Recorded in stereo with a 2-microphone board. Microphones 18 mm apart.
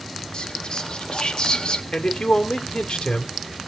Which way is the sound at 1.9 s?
80° left.